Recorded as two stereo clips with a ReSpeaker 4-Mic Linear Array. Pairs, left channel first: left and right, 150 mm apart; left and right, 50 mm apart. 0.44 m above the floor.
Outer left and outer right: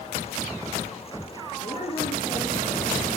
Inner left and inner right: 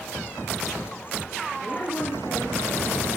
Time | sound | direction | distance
1.6 | a woman speaking | 30° left (ahead or behind) | 9.5 m